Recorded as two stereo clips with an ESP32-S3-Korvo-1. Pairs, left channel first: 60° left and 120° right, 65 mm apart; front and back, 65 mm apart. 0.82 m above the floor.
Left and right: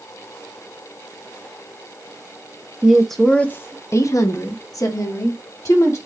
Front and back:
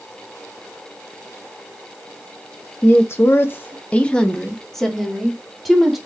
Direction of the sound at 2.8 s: 40° right.